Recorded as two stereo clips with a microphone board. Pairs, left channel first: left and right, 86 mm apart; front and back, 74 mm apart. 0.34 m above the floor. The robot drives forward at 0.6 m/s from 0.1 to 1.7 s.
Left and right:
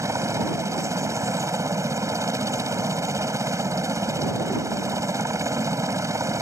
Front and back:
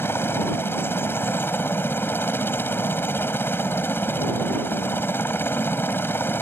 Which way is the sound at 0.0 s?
50° right.